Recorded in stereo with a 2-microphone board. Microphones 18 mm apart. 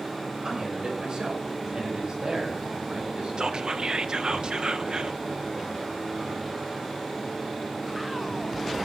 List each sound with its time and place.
0.4 s a man speaking: 35° right (ahead or behind), 6.5 m; by 3.7 s 55° right (ahead or behind), 7.5 m
3.4 s whispering: 45° right (ahead or behind), 0.9 m